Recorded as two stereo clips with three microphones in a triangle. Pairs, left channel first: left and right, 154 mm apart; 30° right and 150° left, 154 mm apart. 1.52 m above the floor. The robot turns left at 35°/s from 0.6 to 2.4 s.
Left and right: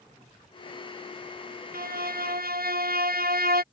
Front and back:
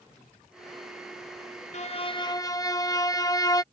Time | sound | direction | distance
1.7 | a violin | 75° right | ?